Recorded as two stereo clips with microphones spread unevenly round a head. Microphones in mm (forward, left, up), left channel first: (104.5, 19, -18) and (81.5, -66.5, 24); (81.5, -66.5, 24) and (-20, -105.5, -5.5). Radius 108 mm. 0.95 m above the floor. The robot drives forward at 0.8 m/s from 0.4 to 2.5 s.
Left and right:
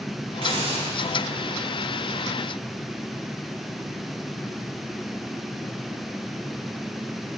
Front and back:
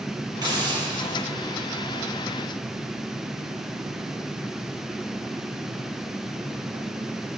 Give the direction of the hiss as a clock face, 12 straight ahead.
4 o'clock.